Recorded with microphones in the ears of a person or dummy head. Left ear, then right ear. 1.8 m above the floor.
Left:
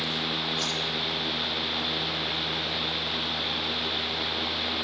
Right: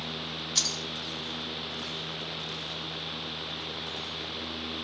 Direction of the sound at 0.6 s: 80° right.